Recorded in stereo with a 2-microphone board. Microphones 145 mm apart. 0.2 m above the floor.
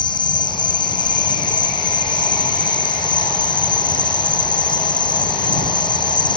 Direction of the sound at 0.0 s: 35° left (ahead or behind).